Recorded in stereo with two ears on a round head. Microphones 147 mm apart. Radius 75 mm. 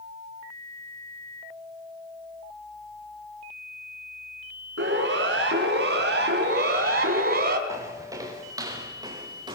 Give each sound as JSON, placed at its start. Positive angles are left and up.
{"t": 4.8, "sound": "a siren", "side_deg": -85, "distance_m": 6.0}
{"t": 7.7, "sound": "footsteps", "side_deg": -20, "distance_m": 6.0}